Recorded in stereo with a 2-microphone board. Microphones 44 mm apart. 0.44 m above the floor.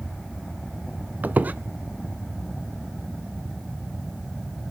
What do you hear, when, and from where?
1.2 s a squeak: 40° right (ahead or behind), 0.6 m